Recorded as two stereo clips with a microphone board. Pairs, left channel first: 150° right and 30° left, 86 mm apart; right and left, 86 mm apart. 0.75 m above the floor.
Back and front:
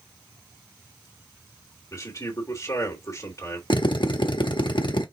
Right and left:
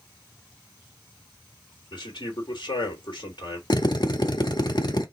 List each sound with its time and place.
1.9 s a man speaking: 105° right, 2.5 m
3.7 s a drill: 125° right, 0.9 m